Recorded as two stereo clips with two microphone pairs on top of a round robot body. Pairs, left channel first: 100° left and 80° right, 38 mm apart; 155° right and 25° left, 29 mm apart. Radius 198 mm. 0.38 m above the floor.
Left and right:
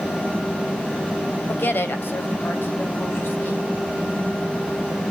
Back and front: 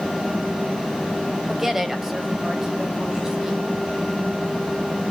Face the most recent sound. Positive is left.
turn(degrees=100)